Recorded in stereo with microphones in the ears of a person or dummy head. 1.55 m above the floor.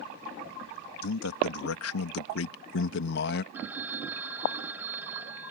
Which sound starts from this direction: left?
A man speaking, at 1.0 s.